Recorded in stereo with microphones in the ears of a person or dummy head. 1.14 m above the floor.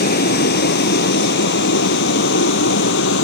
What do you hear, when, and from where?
0.0 s a vehicle: 55° left (ahead or behind); by 3.2 s 70° left (ahead or behind)